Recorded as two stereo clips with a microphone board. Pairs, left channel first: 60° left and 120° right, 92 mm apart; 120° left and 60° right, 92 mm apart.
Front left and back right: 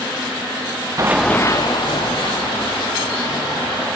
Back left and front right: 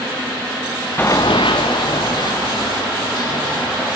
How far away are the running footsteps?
About 0.5 m.